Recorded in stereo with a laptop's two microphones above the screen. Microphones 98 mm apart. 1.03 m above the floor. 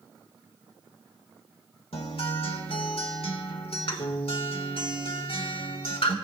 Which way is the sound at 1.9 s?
70° left (ahead or behind).